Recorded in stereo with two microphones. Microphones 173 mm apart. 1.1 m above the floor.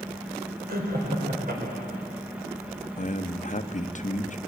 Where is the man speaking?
45° left (ahead or behind), 1.0 m.